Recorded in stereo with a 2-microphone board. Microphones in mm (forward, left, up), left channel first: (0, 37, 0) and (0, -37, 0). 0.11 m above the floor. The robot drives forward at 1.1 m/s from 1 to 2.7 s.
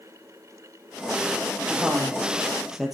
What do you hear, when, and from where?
1.7 s a woman speaking: 5° right (ahead or behind), 4 m